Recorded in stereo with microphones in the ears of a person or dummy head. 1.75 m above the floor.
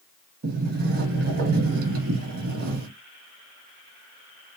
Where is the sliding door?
60° right (ahead or behind), 1.3 m.